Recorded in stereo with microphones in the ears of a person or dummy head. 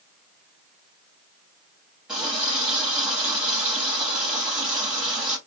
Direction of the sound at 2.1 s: 5° right (ahead or behind).